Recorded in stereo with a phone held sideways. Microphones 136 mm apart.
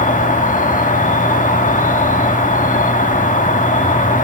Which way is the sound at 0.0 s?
70° left (ahead or behind).